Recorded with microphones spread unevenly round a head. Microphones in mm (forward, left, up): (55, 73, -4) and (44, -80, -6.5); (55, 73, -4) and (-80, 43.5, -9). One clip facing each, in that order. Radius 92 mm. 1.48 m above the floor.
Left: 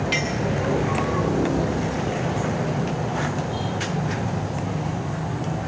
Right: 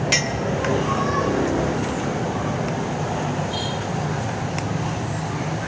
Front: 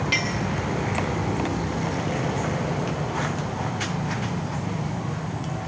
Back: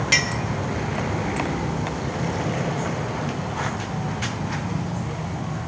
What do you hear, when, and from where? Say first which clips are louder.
0.1 s a clink: right 1 dB, back 1 dB; 125° right, 1.3 m